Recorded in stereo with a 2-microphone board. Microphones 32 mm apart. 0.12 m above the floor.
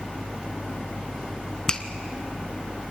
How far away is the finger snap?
About 1.0 m.